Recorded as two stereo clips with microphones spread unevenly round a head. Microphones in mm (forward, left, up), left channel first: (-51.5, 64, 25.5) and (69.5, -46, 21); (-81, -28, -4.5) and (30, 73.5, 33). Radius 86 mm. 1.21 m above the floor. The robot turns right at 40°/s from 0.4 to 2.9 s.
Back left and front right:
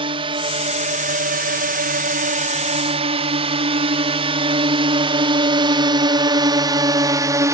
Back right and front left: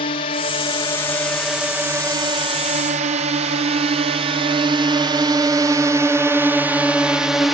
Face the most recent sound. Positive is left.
turn(degrees=-80)